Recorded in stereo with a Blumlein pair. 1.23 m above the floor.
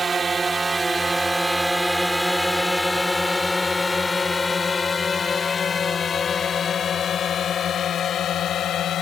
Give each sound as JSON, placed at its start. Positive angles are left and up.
{"t": 0.0, "sound": "a drone", "azimuth_deg": -15}